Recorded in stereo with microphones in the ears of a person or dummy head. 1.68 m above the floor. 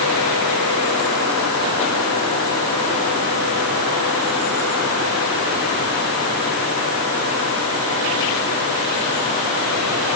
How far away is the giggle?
No giggle in this recording.